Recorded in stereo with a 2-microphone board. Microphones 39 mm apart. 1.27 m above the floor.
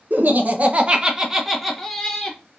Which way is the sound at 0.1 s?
60° right (ahead or behind).